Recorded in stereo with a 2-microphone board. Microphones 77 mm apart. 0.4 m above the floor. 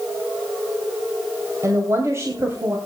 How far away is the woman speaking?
About 2 m.